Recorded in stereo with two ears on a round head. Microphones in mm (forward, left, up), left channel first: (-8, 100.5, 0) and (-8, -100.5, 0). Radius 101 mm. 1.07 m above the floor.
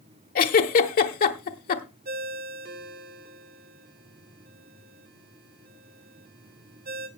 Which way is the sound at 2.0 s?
40° right (ahead or behind).